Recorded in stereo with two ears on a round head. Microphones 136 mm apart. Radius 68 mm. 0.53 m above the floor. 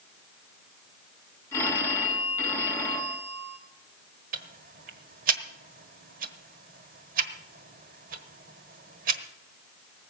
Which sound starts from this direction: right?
Ticking, at 4.3 s.